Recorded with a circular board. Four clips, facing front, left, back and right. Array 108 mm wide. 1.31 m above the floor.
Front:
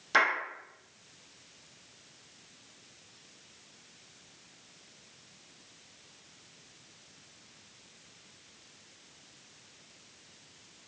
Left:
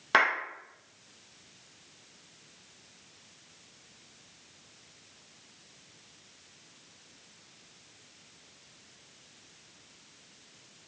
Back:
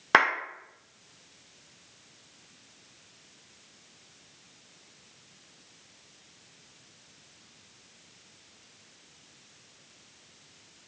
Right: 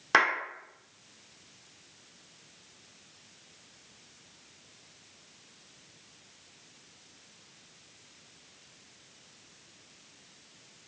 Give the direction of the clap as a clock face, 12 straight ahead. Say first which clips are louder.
Even, back 5 dB; 6 o'clock.